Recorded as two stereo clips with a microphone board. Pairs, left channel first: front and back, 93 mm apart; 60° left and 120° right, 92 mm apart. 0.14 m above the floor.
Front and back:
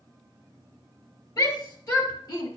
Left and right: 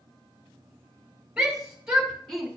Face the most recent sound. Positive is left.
turn(degrees=-30)